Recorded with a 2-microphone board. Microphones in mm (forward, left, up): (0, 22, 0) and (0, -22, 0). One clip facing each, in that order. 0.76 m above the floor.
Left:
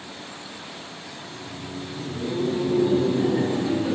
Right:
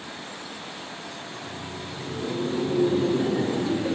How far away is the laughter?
About 5 m.